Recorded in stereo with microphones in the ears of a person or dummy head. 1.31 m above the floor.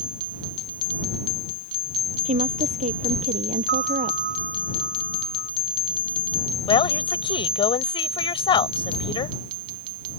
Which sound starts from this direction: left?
A woman speaking, at 6.7 s.